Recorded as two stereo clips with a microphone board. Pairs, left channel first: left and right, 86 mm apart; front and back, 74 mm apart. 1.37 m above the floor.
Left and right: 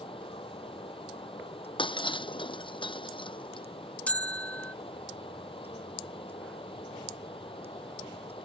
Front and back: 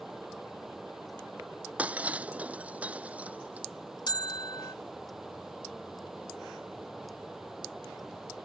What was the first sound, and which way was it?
Running water, 95° left.